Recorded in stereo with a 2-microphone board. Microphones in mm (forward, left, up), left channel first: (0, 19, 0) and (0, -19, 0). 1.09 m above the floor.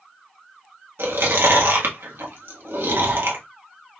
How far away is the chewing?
About 1.4 m.